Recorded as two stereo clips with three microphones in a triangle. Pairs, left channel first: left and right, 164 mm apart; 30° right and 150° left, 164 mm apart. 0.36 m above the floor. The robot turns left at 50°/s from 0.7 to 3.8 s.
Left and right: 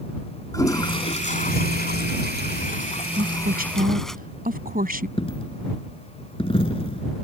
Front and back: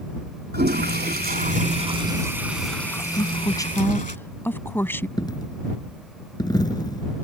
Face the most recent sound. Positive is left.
turn(degrees=35)